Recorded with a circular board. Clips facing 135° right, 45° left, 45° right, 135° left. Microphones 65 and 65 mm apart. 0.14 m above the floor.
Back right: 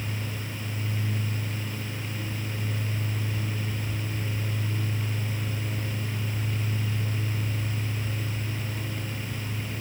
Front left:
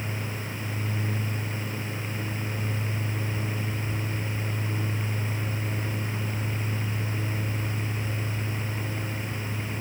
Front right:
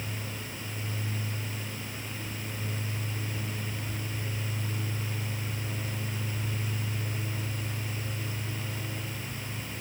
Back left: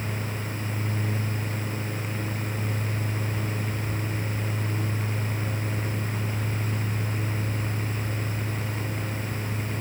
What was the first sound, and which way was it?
Only background noise.